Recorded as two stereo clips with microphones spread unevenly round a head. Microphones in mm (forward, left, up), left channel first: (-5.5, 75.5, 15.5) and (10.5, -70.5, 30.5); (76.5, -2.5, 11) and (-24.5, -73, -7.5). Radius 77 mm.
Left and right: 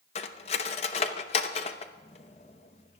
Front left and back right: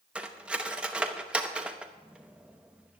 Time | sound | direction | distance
0.1 | cutlery clinking | 125° left | 0.8 m